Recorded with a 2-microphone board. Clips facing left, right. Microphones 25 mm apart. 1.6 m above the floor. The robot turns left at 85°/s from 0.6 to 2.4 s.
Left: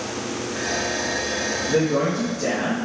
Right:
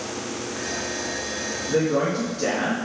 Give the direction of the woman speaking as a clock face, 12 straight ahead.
12 o'clock.